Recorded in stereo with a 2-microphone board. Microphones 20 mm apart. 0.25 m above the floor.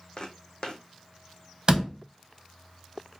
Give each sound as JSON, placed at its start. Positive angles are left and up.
{"t": 0.2, "sound": "footsteps", "side_deg": 40, "distance_m": 0.5}
{"t": 1.7, "sound": "a door slam", "side_deg": -35, "distance_m": 0.9}